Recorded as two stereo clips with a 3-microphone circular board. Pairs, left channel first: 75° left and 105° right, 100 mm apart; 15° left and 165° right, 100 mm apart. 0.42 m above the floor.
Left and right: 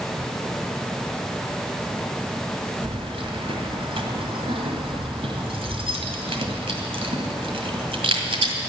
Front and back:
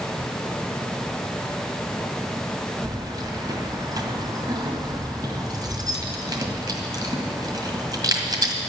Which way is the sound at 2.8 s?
120° right.